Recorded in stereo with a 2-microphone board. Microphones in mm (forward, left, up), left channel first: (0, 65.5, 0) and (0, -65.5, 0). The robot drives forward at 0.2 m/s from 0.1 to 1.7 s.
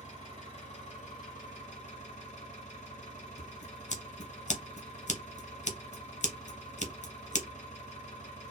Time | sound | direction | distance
0.0 | an engine running | 60° left (ahead or behind) | 1.2 m
3.4 | scissors | 65° left (ahead or behind) | 0.7 m